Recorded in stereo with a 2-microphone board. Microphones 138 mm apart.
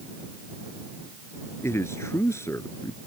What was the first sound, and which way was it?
A man speaking, 20° left (ahead or behind).